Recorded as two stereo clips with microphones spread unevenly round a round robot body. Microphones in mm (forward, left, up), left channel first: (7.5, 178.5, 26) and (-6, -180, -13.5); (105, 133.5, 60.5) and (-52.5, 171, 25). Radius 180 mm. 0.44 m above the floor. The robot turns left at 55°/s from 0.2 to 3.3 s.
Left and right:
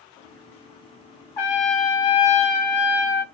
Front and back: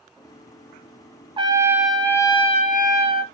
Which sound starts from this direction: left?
A trumpet, at 1.4 s.